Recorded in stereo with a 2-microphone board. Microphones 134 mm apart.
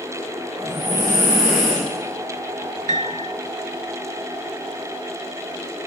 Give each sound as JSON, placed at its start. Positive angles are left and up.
{"t": 0.6, "sound": "breathing", "side_deg": -15, "distance_m": 5.0}
{"t": 2.9, "sound": "a piano", "side_deg": -65, "distance_m": 0.5}